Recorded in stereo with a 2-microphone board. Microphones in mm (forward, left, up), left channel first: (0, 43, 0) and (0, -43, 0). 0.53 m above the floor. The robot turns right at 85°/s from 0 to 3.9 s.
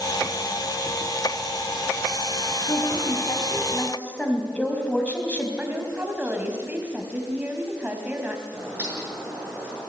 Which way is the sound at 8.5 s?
25° right (ahead or behind).